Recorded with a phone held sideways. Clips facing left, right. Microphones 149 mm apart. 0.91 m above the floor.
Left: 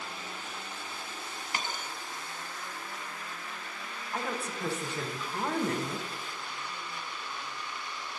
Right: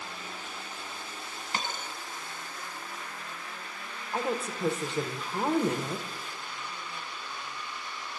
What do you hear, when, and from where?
1.5 s a dropped coin: 30° right (ahead or behind), 1.0 m
4.1 s a woman speaking: 25° right (ahead or behind), 0.8 m